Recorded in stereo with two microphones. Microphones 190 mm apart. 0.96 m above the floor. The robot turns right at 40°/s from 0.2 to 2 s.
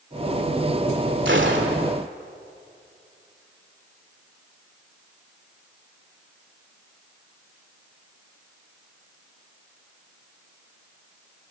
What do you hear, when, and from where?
1.2 s a gunshot: 80° right, 2 m; by 1.9 s 75° right (ahead or behind), 2 m